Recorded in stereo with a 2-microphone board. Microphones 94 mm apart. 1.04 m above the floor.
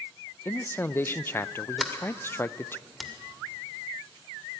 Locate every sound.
0.5 s a man speaking: 25° left (ahead or behind), 0.5 m
1.8 s a sliding door: centre (ahead or behind), 2.5 m